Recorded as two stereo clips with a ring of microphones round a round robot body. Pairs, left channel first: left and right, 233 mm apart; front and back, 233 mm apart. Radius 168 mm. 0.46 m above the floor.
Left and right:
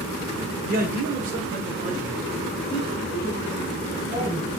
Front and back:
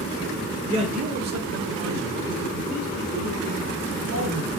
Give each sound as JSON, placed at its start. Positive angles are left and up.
{"t": 0.7, "sound": "a man speaking", "azimuth_deg": -120, "distance_m": 1.3}